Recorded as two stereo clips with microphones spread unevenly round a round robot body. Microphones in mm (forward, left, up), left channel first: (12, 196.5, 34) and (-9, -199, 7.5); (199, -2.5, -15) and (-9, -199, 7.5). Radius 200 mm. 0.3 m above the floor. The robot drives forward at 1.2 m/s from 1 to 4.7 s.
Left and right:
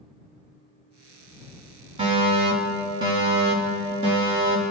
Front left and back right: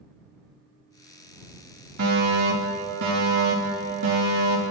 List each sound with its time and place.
2.0 s a fire alarm: 165° right, 2.5 m; by 4.7 s 175° right, 5.5 m